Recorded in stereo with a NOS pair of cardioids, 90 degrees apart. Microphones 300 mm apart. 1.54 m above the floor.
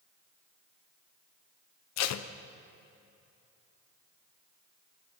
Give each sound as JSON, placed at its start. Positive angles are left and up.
{"t": 2.0, "sound": "tape being pulled", "azimuth_deg": 70, "distance_m": 1.0}